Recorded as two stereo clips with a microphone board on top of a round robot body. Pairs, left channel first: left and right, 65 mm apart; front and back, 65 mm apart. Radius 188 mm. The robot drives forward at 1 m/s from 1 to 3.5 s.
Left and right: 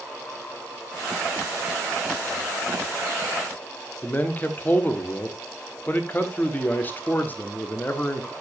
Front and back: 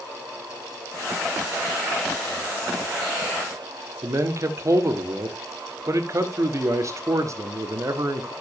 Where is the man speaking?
150° left, 1.5 m.